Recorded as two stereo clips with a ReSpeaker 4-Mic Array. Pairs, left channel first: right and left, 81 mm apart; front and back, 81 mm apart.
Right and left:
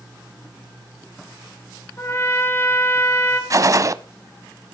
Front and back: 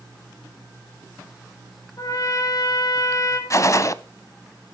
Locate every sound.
2.0 s a trumpet: 35° right, 4.5 m
3.5 s a gunshot: 45° left, 0.6 m